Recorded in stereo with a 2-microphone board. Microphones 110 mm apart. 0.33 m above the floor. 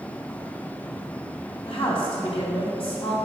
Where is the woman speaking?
60° left (ahead or behind), 3 m.